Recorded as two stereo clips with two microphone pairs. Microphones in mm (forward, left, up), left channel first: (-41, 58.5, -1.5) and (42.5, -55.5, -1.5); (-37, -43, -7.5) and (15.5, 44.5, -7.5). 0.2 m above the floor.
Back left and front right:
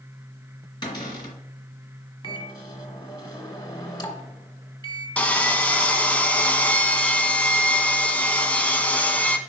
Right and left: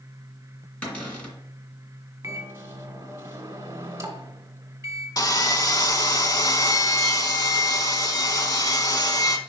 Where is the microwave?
95° left, 1.2 m.